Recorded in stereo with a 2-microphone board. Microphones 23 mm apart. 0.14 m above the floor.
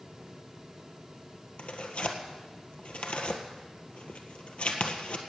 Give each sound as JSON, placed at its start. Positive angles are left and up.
{"t": 1.6, "sound": "tearing paper", "side_deg": 60, "distance_m": 1.6}